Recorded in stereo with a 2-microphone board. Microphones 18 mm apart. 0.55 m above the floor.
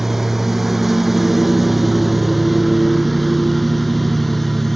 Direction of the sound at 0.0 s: 20° right (ahead or behind).